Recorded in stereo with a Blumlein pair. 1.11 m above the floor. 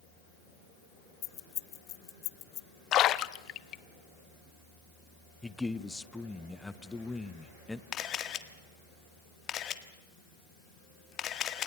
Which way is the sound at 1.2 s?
30° left.